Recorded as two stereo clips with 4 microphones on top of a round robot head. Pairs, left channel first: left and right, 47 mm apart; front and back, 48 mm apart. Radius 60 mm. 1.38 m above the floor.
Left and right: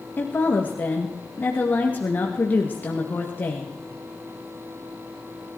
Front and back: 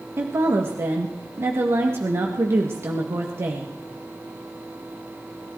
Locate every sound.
0.2 s a woman speaking: 145° left, 2 m